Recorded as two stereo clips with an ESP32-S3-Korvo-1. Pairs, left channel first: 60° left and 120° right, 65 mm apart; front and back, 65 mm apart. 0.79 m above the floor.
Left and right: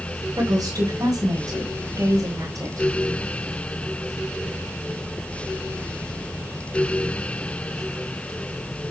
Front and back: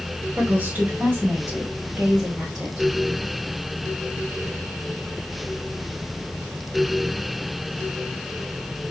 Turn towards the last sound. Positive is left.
turn(degrees=-95)